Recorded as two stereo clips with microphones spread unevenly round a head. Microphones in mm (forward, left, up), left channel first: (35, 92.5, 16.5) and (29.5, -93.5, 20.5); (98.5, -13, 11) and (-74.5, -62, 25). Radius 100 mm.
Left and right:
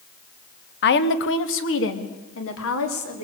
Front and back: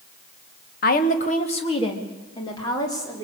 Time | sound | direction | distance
0.8 | a woman speaking | 60° left | 1.3 m